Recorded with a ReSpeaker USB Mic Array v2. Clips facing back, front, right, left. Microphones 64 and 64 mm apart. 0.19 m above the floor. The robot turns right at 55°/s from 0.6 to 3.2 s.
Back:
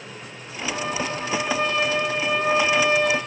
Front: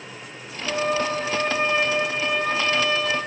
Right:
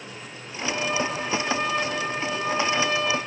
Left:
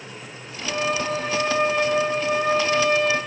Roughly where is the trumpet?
Ahead.